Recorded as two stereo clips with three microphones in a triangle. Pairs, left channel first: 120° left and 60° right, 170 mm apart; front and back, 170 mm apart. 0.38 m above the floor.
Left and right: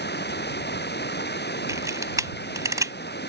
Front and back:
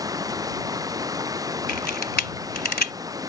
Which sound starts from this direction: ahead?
A camera shutter, at 1.7 s.